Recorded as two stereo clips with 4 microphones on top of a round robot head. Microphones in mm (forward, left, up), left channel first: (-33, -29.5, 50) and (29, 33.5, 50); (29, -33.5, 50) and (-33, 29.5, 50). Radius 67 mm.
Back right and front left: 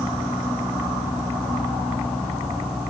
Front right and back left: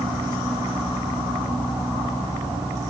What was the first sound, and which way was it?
Only background noise.